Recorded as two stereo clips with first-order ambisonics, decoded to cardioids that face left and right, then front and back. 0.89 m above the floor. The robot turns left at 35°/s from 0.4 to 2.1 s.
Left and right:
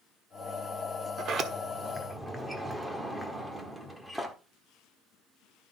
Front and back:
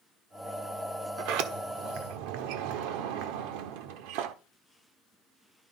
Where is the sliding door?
145° right, 1.3 m; by 4.3 s 175° right, 1.3 m.